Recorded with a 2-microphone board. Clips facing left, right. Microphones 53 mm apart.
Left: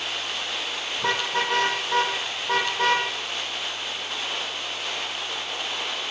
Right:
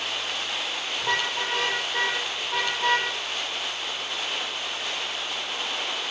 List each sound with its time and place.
1.0 s a car horn: 65° left (ahead or behind), 8 m; by 3.1 s 70° left (ahead or behind), 6.5 m